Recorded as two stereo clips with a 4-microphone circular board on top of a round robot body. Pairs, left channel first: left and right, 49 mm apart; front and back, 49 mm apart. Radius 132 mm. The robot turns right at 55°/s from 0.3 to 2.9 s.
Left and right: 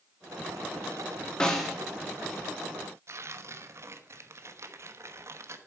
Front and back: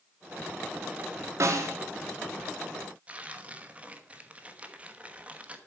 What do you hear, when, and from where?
1.4 s a snare drum: 165° left, 2 m; by 1.8 s 175° right, 2 m
3.1 s tearing paper: 115° right, 1.2 m